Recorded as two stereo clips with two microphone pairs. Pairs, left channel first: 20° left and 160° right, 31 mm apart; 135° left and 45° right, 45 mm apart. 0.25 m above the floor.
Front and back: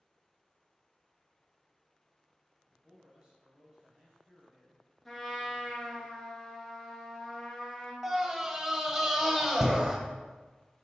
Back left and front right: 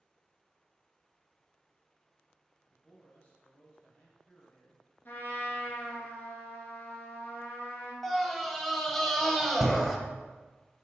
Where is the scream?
145° right, 0.9 m.